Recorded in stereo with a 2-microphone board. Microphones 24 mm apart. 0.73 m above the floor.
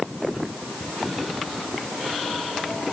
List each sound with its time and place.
Only background noise.